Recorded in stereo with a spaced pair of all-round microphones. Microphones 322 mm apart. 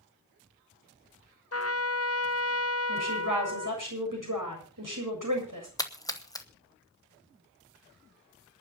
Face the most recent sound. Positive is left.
turn(degrees=10)  # may be behind; listen again after turning